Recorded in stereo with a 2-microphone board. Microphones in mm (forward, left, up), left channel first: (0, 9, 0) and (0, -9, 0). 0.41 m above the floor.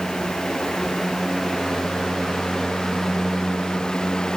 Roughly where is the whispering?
No whispering in this recording.